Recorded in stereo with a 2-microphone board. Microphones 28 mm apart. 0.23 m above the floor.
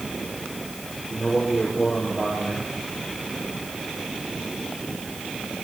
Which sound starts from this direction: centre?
A man speaking, at 1.1 s.